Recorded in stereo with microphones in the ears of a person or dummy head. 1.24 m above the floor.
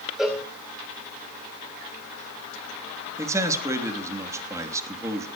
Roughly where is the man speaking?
Centre.